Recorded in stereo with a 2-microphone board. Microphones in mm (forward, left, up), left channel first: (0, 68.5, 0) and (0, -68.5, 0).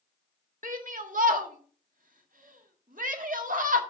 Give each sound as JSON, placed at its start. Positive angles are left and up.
{"t": 0.6, "sound": "a shout", "side_deg": -70, "distance_m": 1.6}